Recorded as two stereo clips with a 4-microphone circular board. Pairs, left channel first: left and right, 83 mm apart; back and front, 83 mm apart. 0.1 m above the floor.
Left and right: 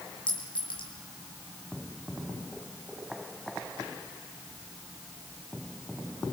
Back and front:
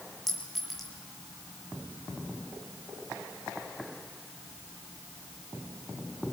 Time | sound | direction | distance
0.3 | a clink | 90° left | 3.5 m